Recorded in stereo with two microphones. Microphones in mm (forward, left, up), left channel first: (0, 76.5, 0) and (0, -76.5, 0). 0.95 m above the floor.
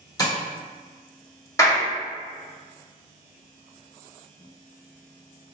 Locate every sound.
0.2 s tapping: 25° left (ahead or behind), 1.0 m
1.6 s a clap: 20° left (ahead or behind), 1.6 m